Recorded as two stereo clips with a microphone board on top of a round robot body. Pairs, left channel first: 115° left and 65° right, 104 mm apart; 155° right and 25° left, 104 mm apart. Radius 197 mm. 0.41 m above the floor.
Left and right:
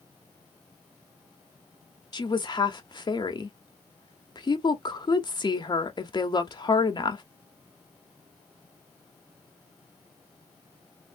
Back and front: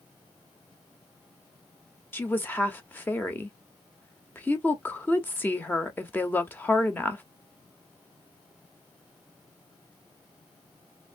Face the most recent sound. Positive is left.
turn(degrees=135)